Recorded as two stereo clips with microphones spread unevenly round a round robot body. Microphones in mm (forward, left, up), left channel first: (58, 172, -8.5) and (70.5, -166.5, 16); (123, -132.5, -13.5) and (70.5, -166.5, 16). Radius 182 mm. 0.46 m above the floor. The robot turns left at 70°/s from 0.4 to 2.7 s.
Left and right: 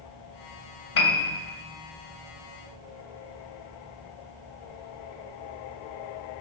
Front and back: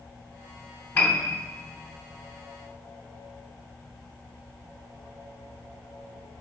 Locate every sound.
0.9 s a piano: 75° left, 2.5 m; by 1.4 s 45° left, 2.5 m